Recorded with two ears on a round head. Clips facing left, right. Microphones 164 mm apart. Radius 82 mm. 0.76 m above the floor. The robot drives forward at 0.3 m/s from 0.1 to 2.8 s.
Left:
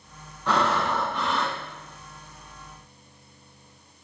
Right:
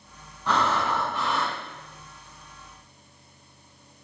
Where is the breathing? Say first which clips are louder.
Left 1 dB; 5° right (ahead or behind), 1.8 m.